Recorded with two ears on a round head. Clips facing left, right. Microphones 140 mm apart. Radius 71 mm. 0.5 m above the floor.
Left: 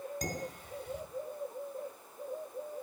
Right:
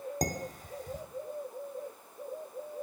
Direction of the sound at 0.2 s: 40° right (ahead or behind).